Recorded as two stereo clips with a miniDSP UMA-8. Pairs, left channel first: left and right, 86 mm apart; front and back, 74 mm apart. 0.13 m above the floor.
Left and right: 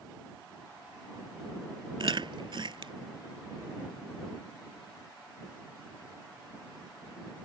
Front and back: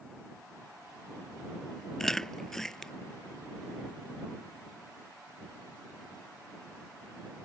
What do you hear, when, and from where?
2.0 s chewing: 85° right